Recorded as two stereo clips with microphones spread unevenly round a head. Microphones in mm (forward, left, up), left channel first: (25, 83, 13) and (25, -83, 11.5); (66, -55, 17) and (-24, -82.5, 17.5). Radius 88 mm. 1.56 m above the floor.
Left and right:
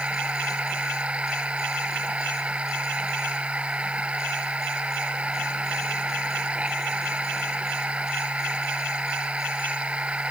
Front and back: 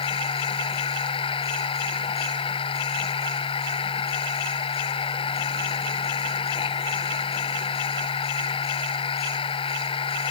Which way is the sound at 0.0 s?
5° right.